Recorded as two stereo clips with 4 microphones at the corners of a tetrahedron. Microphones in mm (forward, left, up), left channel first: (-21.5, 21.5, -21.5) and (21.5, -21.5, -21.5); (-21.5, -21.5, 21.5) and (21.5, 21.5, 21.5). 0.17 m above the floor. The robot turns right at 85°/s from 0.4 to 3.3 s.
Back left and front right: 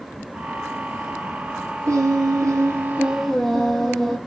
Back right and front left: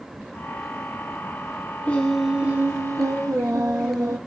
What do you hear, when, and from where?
1.9 s singing: 70° right, 1.4 m; by 4.2 s 50° left, 1.4 m